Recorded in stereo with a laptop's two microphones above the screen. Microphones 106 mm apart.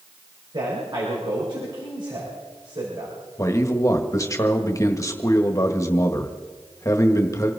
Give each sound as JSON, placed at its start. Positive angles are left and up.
{"t": 0.5, "sound": "a man speaking", "side_deg": -50, "distance_m": 5.5}
{"t": 3.4, "sound": "a man speaking", "side_deg": 30, "distance_m": 1.4}